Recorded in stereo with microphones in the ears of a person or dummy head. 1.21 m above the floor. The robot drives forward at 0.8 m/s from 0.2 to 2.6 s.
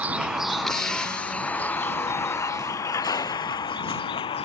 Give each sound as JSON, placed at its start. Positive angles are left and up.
{"t": 0.0, "sound": "a vehicle", "side_deg": -5}